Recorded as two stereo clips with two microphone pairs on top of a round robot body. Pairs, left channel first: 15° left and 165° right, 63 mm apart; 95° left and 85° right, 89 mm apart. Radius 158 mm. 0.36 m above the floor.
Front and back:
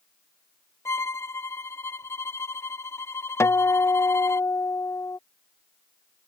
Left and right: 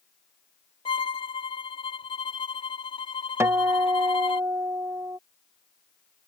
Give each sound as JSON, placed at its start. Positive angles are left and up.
{"t": 0.8, "sound": "a violin", "azimuth_deg": 65}
{"t": 3.4, "sound": "a guitar", "azimuth_deg": -25}